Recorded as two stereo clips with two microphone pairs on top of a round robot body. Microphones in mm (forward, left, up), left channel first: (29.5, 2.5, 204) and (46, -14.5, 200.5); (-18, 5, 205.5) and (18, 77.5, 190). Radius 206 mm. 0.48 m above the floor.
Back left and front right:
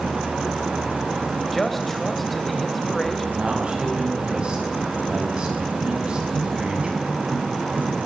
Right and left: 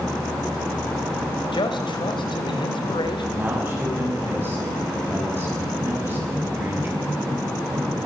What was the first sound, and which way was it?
A man speaking, 140° right.